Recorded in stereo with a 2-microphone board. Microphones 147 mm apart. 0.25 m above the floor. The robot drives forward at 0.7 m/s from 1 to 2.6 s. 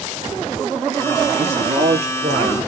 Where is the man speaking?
50° right (ahead or behind), 6 m; by 2.6 s 45° right (ahead or behind), 6.5 m.